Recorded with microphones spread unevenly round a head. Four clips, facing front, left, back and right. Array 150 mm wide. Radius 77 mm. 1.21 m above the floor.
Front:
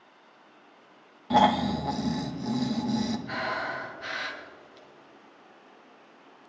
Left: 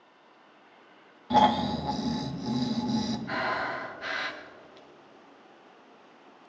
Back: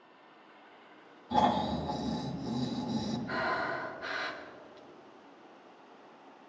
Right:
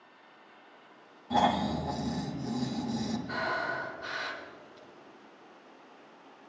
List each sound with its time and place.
1.3 s snoring: 20° left, 1.5 m
3.3 s breathing: 60° left, 1.9 m